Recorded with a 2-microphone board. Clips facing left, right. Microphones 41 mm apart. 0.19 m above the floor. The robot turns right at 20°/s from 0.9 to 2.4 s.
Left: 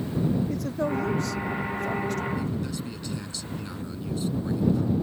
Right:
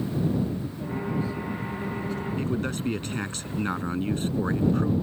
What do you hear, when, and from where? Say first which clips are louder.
0.5 s a man speaking: left 5 dB; 80° left; by 2.3 s 70° left (ahead or behind)
2.4 s a man speaking: right 2 dB; 50° right (ahead or behind)